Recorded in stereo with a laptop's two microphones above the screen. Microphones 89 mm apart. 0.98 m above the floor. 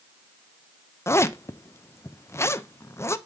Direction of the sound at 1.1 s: 30° left (ahead or behind).